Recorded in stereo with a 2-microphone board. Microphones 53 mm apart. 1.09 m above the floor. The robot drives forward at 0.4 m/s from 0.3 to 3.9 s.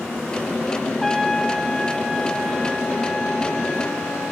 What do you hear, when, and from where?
1.0 s a trumpet: centre (ahead or behind), 0.6 m